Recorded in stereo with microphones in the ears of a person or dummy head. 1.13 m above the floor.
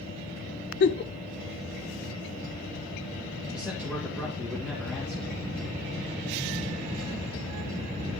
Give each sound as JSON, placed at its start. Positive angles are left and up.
{"t": 0.8, "sound": "a giggle", "side_deg": 50, "distance_m": 0.7}
{"t": 3.5, "sound": "a man speaking", "side_deg": 0, "distance_m": 2.5}